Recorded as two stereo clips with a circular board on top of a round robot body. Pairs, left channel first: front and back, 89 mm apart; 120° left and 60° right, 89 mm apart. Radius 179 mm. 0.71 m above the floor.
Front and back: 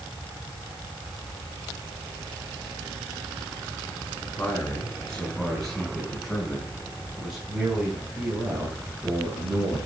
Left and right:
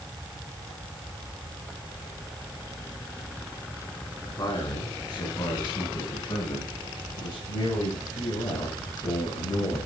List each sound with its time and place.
4.2 s a man speaking: 75° left, 7 m; by 9.9 s 115° left, 7.5 m